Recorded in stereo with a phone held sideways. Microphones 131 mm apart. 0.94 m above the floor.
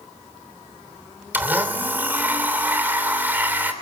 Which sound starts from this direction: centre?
A blender, at 1.3 s.